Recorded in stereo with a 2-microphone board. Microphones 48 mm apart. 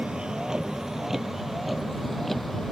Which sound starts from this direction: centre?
A vehicle, at 0.0 s.